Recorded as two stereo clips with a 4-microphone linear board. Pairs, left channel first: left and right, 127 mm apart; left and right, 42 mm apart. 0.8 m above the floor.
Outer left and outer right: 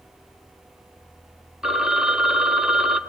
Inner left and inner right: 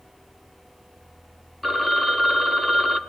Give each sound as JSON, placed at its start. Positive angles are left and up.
{"t": 1.6, "sound": "a phone ringing", "side_deg": -5, "distance_m": 0.8}